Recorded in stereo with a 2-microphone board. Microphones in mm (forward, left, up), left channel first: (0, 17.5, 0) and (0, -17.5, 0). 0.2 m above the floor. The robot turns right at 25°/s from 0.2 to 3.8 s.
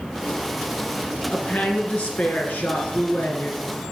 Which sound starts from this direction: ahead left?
A woman speaking, at 1.3 s.